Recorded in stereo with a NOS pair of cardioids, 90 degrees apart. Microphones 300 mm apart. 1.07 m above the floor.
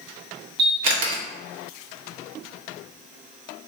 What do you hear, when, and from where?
0.6 s a camera shutter: 60° right, 0.8 m